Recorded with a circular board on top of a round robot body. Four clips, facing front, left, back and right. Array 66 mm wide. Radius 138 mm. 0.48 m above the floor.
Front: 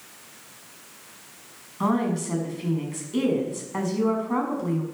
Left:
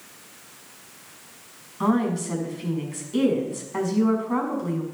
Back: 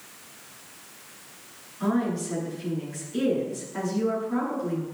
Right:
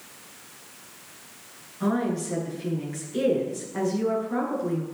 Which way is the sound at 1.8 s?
45° left.